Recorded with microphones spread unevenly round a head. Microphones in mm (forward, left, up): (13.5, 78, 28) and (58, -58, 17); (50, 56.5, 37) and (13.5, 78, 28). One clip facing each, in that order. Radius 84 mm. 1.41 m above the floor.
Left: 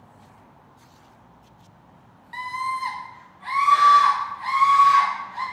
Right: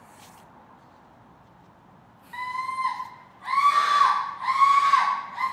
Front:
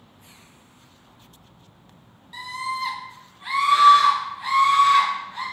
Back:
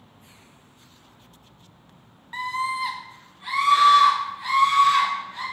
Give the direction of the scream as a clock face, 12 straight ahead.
7 o'clock.